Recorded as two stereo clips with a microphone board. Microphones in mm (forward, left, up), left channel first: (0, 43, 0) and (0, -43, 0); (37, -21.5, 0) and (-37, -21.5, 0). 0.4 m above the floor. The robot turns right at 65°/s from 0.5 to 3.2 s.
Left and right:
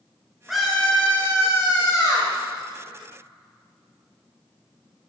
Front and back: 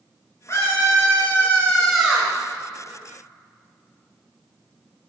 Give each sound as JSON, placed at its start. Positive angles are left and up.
{"t": 0.5, "sound": "a scream", "azimuth_deg": -5, "distance_m": 1.8}